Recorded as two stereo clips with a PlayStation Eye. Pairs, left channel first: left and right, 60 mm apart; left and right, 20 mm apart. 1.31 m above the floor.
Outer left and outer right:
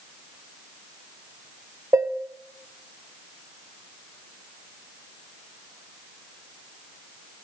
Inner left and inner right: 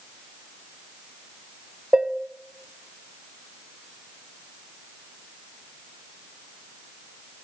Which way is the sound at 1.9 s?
45° right (ahead or behind).